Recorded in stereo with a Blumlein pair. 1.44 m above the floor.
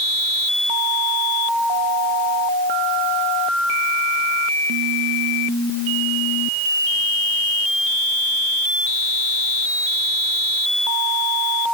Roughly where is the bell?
I don't hear a bell.